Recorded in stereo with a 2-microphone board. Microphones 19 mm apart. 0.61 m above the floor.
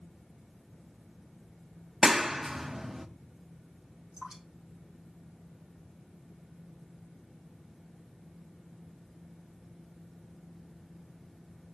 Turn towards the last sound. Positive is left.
turn(degrees=-45)  # may be behind; listen again after turning